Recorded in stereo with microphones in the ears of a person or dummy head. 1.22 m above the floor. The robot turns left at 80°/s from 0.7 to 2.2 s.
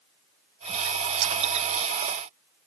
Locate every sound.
1.2 s a clink: 70° right (ahead or behind), 1.1 m; by 1.3 s 60° right (ahead or behind), 1.1 m